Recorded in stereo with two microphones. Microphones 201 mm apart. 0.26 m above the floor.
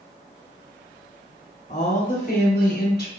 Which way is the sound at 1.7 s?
45° left (ahead or behind).